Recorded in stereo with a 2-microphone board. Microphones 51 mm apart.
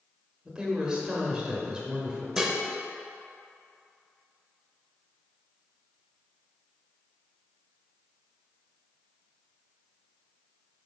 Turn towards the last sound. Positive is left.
turn(degrees=-10)  # may be behind; listen again after turning